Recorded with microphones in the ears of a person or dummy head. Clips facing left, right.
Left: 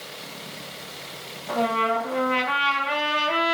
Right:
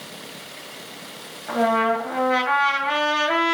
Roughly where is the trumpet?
Right.